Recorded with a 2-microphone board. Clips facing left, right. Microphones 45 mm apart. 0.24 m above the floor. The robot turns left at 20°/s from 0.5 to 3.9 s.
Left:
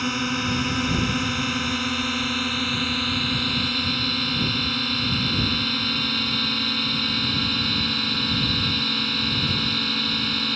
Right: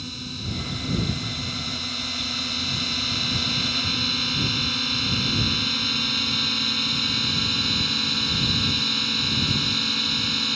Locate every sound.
0.0 s a drone: 75° left; by 10.6 s 10° left